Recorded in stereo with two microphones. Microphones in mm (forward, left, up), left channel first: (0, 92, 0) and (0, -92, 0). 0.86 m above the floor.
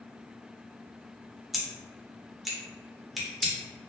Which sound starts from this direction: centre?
Scissors, at 1.5 s.